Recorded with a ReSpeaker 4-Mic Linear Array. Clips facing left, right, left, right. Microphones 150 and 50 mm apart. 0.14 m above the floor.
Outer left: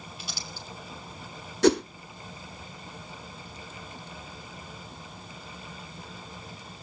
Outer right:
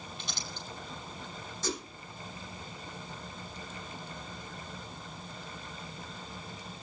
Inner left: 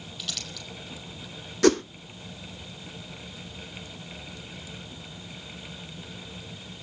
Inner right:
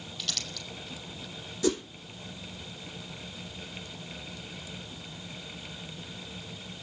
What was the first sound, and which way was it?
Crumpling, 5° left (ahead or behind).